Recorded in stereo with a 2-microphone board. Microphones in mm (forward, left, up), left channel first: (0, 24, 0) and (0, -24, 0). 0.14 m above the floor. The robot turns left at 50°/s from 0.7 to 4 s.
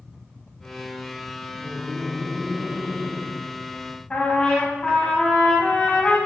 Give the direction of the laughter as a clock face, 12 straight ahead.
11 o'clock.